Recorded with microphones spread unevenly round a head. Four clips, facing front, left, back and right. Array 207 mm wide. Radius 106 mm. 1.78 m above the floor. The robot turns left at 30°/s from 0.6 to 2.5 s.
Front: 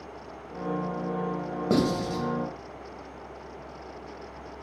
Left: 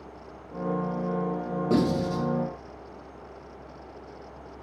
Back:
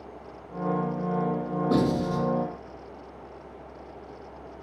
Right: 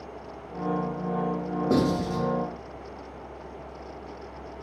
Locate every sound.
1.7 s writing: 5° right, 2 m; by 2.2 s 20° right, 2 m